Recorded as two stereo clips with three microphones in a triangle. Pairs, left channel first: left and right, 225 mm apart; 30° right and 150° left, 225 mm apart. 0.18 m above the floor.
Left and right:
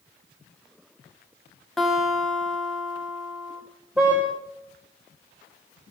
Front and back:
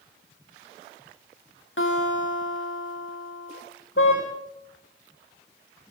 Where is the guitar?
Straight ahead, 7 m.